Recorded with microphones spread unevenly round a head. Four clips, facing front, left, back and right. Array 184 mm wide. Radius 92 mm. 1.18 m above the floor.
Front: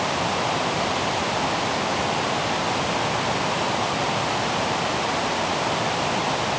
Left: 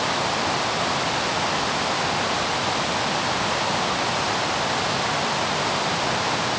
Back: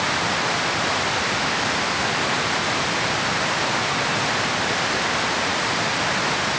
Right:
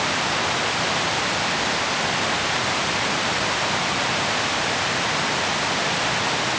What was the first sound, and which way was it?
Only background noise.